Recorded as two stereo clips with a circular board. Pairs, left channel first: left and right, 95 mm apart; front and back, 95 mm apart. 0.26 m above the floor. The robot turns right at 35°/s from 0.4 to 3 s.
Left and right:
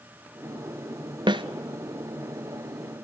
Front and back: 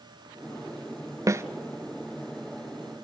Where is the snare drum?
125° right, 0.7 m; by 1.4 s 120° right, 0.7 m.